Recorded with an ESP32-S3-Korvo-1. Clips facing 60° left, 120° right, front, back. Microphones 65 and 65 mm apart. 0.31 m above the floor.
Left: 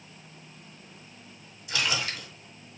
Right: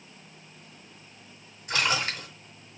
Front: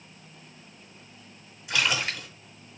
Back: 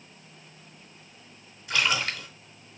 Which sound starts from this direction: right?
A splash, at 1.7 s.